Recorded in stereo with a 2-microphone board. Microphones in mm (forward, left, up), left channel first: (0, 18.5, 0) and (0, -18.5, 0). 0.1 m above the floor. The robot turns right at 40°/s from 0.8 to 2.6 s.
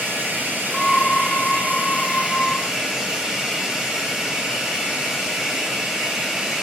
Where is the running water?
90° right, 4 m; by 6.6 s 15° right, 4 m.